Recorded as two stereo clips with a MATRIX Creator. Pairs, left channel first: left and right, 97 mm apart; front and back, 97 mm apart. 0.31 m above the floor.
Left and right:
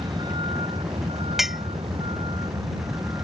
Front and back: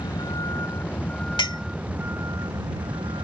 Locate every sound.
0.0 s a vehicle: 50° right; by 3.2 s 145° right
1.4 s a clink: 5° right